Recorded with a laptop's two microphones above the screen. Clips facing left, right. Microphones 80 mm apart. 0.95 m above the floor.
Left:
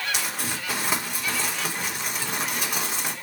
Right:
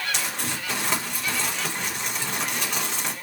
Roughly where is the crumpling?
Centre.